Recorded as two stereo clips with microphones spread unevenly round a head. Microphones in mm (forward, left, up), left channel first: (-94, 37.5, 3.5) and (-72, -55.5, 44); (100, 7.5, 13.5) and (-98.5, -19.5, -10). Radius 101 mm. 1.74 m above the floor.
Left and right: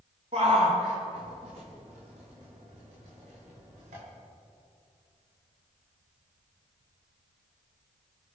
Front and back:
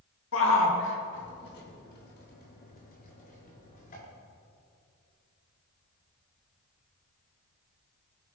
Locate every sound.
0.3 s a shout: 15° right, 2.5 m; by 4.0 s 45° right, 5.5 m